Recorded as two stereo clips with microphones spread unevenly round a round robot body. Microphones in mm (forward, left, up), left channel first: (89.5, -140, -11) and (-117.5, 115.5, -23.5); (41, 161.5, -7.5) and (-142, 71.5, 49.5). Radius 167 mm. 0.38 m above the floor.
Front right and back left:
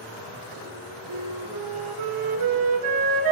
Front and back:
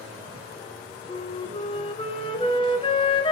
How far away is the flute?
About 1.0 m.